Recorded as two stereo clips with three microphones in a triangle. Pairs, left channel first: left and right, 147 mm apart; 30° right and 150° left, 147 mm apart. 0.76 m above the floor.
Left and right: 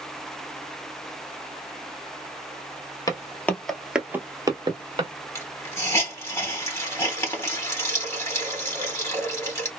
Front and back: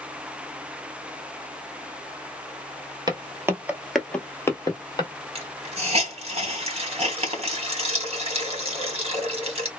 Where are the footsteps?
130° left, 0.8 m; by 5.1 s 70° right, 0.9 m.